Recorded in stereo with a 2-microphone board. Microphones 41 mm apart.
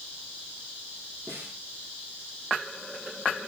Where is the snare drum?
65° right (ahead or behind), 8.5 m.